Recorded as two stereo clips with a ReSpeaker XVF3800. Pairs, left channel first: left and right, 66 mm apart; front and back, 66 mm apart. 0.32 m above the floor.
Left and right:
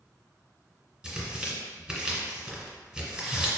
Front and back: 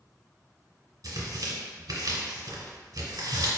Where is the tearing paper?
165° right, 1.7 m.